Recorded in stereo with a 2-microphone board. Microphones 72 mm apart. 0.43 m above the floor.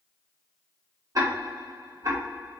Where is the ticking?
55° right (ahead or behind), 1.0 m.